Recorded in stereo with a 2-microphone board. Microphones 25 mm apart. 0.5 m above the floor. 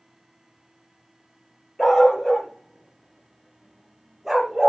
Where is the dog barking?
10° left (ahead or behind), 4.5 m; by 4.7 s 15° right (ahead or behind), 5 m.